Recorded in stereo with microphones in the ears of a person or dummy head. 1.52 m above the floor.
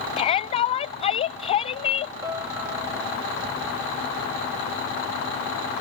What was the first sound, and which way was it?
A shout, 30° left (ahead or behind).